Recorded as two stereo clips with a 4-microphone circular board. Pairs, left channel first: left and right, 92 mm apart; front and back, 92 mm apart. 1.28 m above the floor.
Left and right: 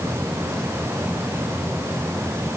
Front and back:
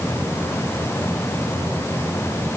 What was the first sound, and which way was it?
Only background noise.